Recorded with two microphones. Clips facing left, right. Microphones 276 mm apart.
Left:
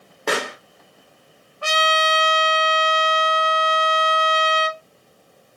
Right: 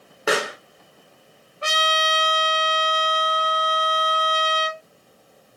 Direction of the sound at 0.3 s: 5° right (ahead or behind).